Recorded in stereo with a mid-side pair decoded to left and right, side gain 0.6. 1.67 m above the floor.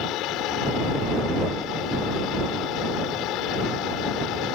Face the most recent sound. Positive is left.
turn(degrees=70)